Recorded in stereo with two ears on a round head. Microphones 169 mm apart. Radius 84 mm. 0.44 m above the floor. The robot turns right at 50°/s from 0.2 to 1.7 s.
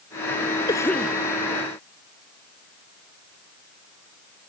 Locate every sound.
0.7 s a cough: 20° left (ahead or behind); by 1.2 s 5° right (ahead or behind)